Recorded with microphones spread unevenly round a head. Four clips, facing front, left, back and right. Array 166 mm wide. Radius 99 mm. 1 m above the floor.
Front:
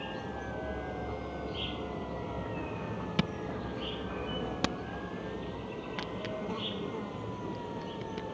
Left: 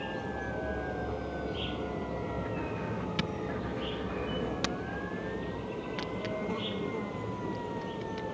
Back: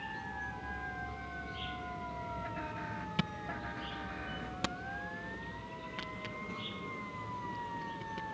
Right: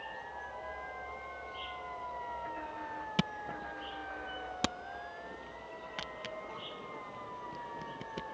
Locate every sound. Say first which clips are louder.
0.0 s an insect: left 8 dB, front 4 dB; 70° left
3.2 s a camera shutter: left 3 dB, front 5 dB; 20° right